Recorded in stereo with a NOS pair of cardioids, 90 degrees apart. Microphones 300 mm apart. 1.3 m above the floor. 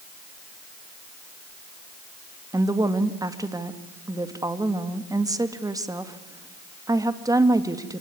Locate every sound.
2.5 s a woman speaking: 10° right, 2 m